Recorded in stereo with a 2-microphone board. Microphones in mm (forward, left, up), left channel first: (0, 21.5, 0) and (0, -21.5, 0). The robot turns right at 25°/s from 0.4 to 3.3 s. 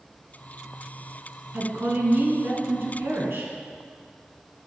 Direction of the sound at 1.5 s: 130° right.